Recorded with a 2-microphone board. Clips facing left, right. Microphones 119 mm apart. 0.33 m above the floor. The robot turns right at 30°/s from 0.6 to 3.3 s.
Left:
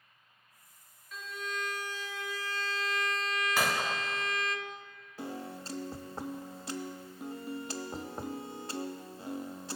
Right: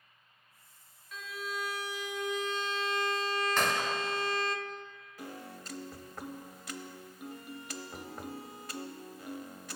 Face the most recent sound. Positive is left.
turn(degrees=30)  # may be behind; listen again after turning